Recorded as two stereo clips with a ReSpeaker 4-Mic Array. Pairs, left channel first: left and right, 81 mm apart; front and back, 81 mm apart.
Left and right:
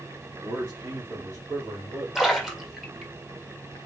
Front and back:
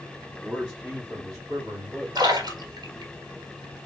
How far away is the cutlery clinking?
No cutlery clinking in this recording.